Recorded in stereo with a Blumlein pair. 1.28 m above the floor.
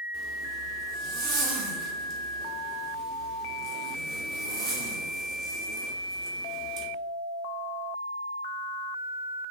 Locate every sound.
0.1 s a zipper: 40° right, 2.0 m